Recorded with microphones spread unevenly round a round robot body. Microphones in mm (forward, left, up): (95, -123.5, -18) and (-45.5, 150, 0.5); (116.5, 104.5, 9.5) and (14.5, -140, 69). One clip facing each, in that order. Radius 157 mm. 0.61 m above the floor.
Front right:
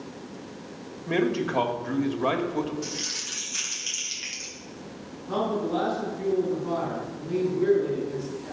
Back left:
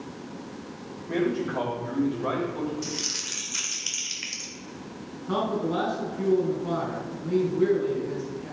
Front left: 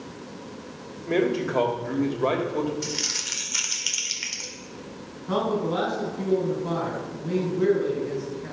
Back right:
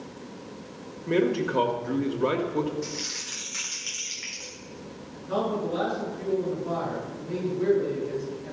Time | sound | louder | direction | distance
1.1 | a man speaking | front right 1 dB, even | 35° right | 2 m
2.8 | crumpling | back left 1 dB, front left 2 dB | 40° left | 2 m
5.3 | a man speaking | even, front left 3 dB | 60° left | 5.5 m